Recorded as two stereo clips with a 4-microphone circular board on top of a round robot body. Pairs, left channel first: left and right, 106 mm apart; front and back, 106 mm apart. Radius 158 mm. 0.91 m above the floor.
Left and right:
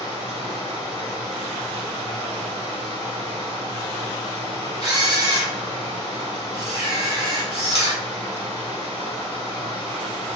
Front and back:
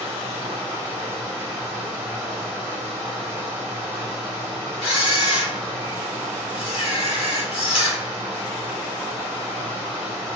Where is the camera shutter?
35° right, 1.0 m.